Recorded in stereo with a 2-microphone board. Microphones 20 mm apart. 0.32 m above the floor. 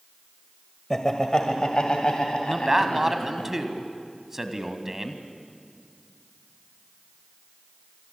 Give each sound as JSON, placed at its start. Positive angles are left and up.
{"t": 0.9, "sound": "laughter", "side_deg": 25, "distance_m": 1.6}
{"t": 2.5, "sound": "a man speaking", "side_deg": -15, "distance_m": 2.0}